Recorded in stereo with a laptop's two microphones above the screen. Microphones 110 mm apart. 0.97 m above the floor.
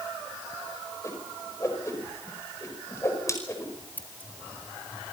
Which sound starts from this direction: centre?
Scissors, at 4.0 s.